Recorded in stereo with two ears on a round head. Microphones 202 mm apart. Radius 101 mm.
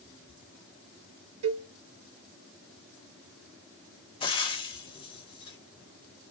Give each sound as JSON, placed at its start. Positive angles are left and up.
{"t": 1.4, "sound": "a cowbell", "side_deg": -75, "distance_m": 1.0}
{"t": 4.2, "sound": "frying", "side_deg": 25, "distance_m": 0.7}